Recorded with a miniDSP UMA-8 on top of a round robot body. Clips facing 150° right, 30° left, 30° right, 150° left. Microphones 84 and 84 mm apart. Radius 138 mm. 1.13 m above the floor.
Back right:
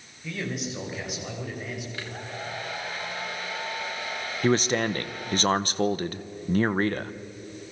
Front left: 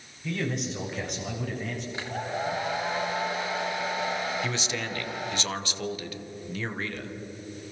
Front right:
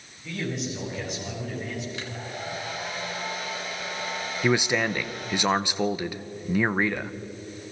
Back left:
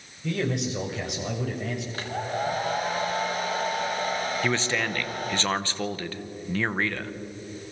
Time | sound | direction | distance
0.2 | a man speaking | 120° left | 6.5 m
1.9 | a hair dryer | 100° left | 1.2 m
4.4 | a man speaking | 105° right | 1.1 m